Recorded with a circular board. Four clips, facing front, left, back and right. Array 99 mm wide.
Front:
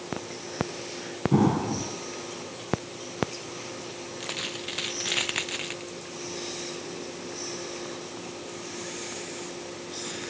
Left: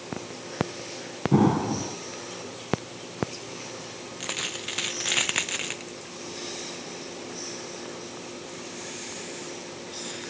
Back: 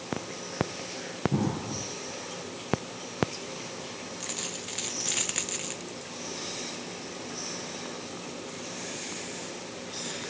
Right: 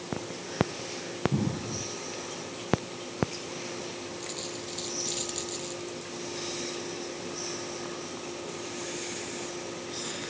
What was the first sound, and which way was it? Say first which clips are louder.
An explosion: left 10 dB, front 11 dB; 60° left.